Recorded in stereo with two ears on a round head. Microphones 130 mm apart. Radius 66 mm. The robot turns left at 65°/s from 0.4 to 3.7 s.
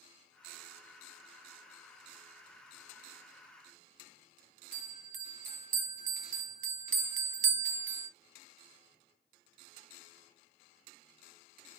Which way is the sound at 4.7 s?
50° right (ahead or behind).